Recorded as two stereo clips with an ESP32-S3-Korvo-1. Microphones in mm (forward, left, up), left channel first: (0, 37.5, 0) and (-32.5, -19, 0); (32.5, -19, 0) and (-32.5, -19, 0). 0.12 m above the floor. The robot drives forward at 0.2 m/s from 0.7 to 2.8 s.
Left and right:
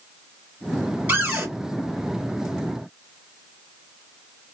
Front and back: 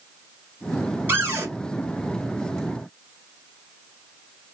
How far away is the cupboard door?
About 1.8 m.